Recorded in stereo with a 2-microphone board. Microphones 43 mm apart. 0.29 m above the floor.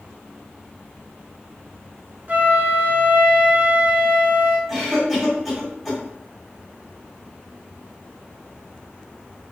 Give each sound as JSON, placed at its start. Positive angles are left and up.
{"t": 2.3, "sound": "a flute", "side_deg": -45, "distance_m": 0.6}
{"t": 4.7, "sound": "a cough", "side_deg": -5, "distance_m": 1.3}